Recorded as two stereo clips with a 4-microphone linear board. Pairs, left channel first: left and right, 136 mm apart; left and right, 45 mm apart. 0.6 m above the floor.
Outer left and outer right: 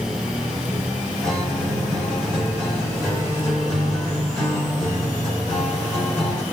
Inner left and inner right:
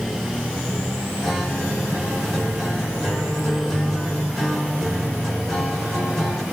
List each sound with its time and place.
1.2 s a guitar: 5° left (ahead or behind), 2.5 m